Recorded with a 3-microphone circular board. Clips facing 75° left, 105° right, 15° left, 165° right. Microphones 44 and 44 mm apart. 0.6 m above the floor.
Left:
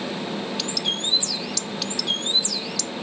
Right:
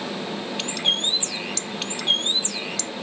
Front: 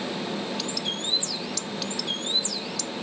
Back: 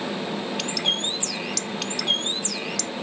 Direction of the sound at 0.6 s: 150° right.